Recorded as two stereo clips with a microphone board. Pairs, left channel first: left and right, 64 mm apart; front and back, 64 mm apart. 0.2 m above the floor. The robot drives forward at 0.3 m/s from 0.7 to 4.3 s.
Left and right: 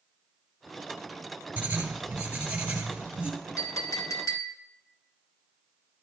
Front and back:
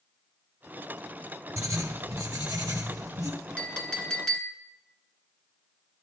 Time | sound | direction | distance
1.6 | writing | 155° right | 1.1 m
3.6 | a clink | 70° left | 1.3 m